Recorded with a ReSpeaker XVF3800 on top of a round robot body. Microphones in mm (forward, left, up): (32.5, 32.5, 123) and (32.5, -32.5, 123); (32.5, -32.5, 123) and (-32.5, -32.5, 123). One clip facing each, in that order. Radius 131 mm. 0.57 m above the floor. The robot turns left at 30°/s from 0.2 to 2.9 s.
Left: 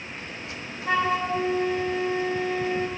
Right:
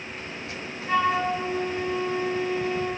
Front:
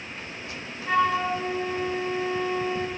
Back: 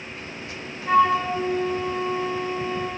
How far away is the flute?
About 4.5 m.